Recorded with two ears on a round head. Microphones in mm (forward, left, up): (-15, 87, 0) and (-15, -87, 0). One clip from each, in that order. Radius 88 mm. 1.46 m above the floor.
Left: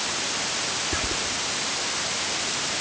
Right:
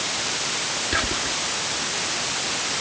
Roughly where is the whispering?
Right.